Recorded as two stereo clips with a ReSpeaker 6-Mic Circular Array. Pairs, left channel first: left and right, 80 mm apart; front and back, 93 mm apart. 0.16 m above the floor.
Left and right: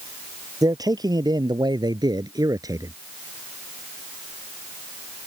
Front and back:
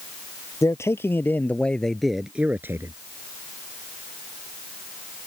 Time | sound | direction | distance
0.6 | a man speaking | 55° right | ?